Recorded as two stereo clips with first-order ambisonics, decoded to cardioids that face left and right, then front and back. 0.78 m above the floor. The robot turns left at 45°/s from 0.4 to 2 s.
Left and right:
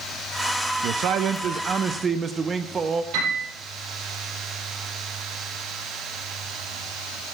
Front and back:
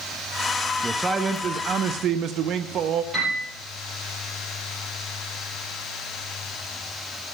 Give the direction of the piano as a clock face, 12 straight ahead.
3 o'clock.